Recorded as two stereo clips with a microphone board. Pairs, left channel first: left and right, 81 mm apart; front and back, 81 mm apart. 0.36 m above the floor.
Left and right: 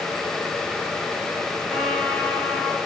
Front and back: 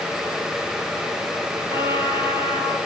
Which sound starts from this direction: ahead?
A trumpet, at 1.7 s.